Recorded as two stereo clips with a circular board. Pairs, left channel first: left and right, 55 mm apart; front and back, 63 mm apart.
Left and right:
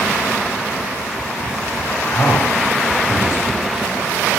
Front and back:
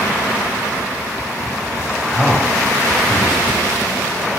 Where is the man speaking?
80° left, 1.6 m.